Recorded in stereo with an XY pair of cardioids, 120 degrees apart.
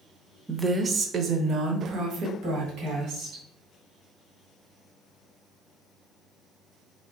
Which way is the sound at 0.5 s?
15° right.